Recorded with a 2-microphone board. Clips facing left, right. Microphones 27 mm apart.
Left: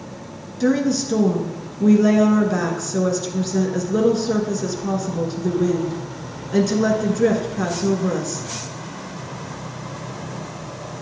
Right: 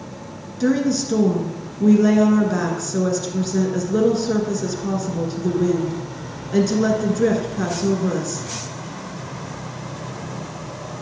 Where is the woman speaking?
Centre (ahead or behind), 1.1 m.